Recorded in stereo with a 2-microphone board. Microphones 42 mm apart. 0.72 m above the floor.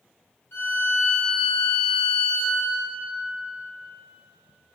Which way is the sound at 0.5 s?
55° left (ahead or behind).